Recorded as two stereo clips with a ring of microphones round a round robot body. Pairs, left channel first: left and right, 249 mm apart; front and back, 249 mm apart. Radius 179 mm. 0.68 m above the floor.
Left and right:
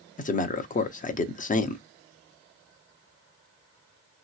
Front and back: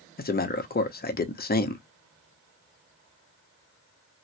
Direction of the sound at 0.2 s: 40° left.